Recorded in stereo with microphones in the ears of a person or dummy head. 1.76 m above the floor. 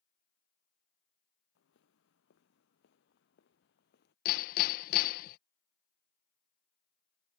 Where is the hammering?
55° left (ahead or behind).